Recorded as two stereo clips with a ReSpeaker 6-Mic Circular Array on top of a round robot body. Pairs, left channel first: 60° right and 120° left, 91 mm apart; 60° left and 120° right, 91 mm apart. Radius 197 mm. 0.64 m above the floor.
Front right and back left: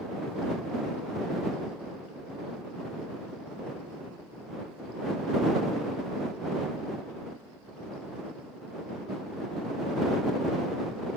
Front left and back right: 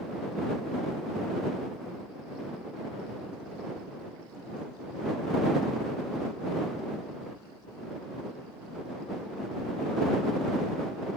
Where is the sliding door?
I don't hear a sliding door.